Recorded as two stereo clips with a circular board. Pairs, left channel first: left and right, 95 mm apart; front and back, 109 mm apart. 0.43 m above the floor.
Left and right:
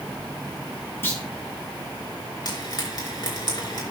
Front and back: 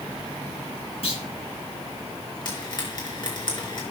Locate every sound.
1.0 s a clunk: 25° left, 3 m
2.5 s frying: 45° left, 4 m